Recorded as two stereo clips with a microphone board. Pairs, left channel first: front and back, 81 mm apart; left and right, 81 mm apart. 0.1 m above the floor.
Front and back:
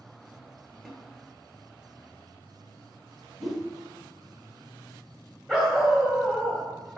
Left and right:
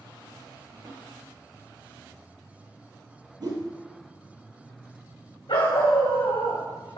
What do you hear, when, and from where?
0.8 s a snare drum: 85° right, 1.9 m
3.4 s a whoosh: 95° right, 1.5 m
5.5 s a dog barking: 80° left, 3.5 m